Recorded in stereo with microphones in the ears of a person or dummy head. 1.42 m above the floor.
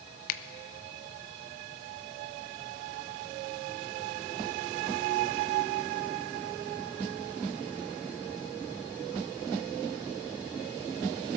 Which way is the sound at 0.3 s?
50° left (ahead or behind).